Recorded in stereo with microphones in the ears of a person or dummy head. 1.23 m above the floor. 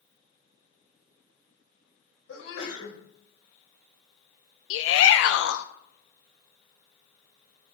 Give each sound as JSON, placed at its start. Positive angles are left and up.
{"t": 2.3, "sound": "a sneeze", "side_deg": 85, "distance_m": 4.5}
{"t": 4.7, "sound": "a shout", "side_deg": 80, "distance_m": 0.5}